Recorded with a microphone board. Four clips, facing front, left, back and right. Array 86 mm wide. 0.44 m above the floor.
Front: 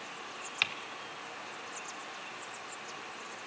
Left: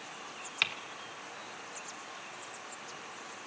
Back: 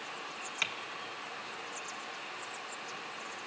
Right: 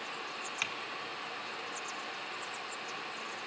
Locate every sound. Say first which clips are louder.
0.6 s typing on a keyboard: left 5 dB, front 2 dB; 50° left, 1.1 m